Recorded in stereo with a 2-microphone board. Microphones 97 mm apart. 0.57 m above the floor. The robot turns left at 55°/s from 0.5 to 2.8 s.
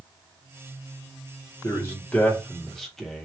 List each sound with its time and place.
1.6 s a man speaking: 30° left (ahead or behind), 0.8 m; by 3.3 s 5° left (ahead or behind), 0.8 m